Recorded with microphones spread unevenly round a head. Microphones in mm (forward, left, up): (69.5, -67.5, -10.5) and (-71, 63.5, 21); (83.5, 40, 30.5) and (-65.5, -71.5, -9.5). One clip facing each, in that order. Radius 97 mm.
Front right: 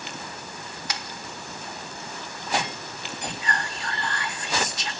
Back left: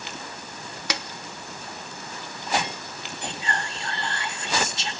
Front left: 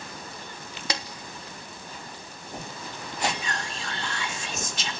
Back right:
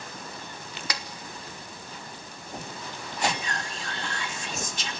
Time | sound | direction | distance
0.9 | a snare drum | 105° left | 1.2 m
3.2 | whispering | 70° left | 2.5 m